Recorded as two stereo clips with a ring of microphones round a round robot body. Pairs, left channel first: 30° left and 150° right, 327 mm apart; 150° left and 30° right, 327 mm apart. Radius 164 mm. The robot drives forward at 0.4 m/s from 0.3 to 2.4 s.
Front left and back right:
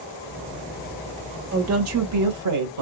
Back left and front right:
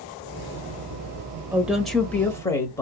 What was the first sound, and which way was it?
A woman speaking, 115° right.